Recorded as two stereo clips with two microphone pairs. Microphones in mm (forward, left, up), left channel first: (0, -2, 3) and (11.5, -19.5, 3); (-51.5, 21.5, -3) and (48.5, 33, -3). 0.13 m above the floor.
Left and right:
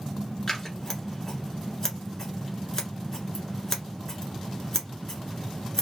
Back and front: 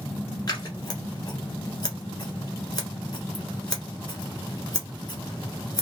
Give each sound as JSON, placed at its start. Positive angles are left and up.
{"t": 0.5, "sound": "scissors", "azimuth_deg": 180, "distance_m": 1.2}